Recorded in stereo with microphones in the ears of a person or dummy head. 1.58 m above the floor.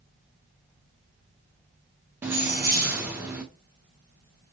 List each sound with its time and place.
2.2 s keys jangling: 10° right (ahead or behind), 0.7 m